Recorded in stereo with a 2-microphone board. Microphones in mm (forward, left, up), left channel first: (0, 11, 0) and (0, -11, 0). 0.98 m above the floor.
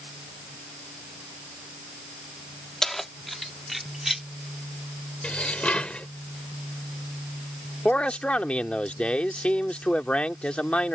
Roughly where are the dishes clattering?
Left.